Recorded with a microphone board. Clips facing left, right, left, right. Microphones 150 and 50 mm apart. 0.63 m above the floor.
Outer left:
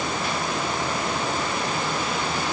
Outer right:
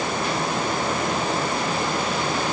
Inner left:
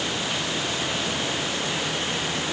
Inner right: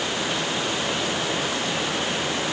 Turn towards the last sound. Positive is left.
No sound to turn to.